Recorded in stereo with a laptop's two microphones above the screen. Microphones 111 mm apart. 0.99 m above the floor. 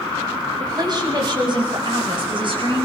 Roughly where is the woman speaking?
Right.